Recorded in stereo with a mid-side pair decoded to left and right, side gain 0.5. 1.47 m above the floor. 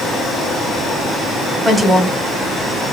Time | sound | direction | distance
1.6 | a woman speaking | 10° right | 1.6 m